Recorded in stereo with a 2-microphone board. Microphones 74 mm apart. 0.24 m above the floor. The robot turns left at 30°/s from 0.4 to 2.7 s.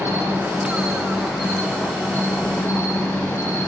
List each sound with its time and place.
0.0 s an insect: 150° right, 3.5 m; by 3.7 s 140° left, 3.5 m